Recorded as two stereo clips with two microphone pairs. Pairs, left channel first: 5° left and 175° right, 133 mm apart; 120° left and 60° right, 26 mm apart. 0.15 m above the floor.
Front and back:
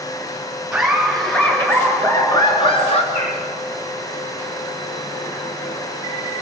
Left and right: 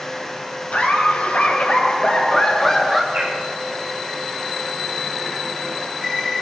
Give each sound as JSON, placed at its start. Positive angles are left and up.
{"t": 0.7, "sound": "laughter", "azimuth_deg": 100, "distance_m": 3.5}
{"t": 3.1, "sound": "a bird", "azimuth_deg": -40, "distance_m": 4.0}